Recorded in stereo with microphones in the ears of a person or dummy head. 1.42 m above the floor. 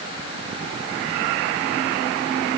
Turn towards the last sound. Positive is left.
No sound to turn to.